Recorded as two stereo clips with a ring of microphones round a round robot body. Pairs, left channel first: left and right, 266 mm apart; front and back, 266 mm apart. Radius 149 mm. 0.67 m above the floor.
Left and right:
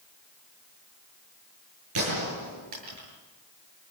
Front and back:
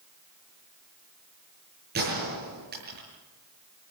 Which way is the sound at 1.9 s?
120° right.